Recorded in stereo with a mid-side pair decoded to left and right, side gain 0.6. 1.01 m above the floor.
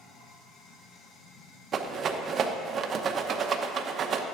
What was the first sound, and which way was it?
Running water, 65° left.